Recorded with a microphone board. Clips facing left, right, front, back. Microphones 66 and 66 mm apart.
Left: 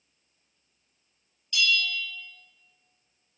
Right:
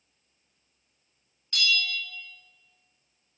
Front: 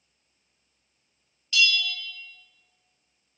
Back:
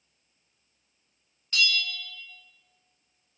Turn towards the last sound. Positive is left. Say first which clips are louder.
# left 1 dB, front 3 dB
turn(degrees=-125)